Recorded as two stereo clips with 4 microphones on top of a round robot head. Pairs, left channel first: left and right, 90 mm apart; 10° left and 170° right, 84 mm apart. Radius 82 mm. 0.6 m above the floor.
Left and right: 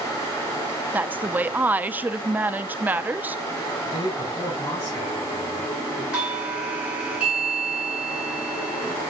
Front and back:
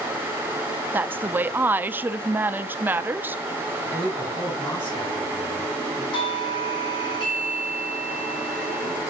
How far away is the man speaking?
About 4.5 m.